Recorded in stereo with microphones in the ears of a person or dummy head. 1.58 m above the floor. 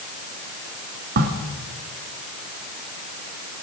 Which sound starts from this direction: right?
A crack, at 1.2 s.